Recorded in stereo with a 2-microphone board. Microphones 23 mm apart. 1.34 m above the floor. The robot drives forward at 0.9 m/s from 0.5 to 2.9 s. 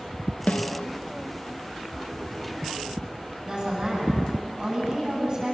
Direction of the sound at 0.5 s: 75° left (ahead or behind).